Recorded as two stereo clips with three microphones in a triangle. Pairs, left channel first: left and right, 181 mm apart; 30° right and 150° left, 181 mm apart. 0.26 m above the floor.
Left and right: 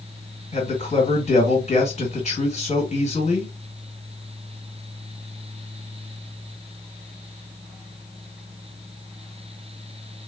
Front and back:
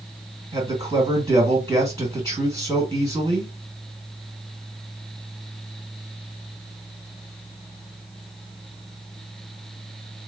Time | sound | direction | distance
0.5 | a man speaking | 95° left | 1.8 m